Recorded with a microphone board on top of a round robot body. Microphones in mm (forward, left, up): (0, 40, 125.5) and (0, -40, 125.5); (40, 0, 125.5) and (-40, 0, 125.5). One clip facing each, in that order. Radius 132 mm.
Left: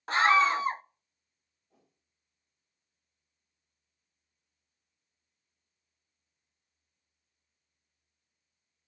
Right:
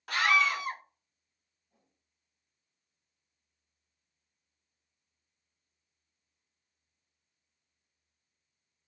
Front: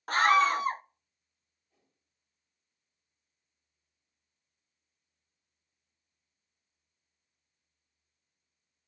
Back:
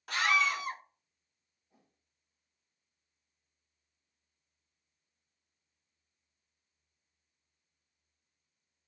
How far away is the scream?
About 0.6 m.